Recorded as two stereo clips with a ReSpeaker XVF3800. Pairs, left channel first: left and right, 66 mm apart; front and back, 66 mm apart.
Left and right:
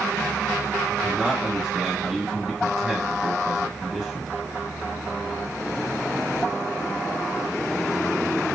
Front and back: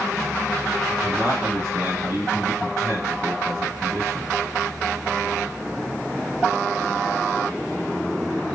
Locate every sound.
0.9 s a man speaking: 160° right, 0.9 m